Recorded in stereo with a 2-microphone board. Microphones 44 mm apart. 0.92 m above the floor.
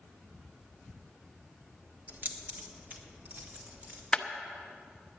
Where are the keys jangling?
40° right (ahead or behind), 1.1 m.